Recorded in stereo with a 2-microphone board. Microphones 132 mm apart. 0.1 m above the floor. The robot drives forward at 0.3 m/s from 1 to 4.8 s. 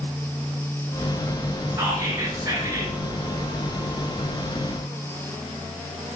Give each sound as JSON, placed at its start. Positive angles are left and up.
{"t": 1.7, "sound": "whispering", "side_deg": -25, "distance_m": 1.2}